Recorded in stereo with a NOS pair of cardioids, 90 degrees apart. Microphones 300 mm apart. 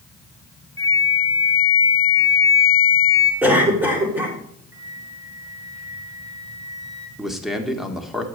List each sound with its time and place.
0.8 s a flute: 10° left, 3.5 m
3.4 s a cough: 5° right, 4.5 m
4.7 s a flute: 10° right, 2 m
7.2 s a man speaking: straight ahead, 2 m